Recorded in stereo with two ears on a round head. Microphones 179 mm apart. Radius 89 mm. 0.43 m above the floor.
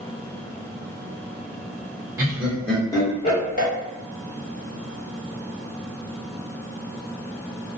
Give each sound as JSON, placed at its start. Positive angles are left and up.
{"t": 2.2, "sound": "laughter", "side_deg": -15, "distance_m": 1.0}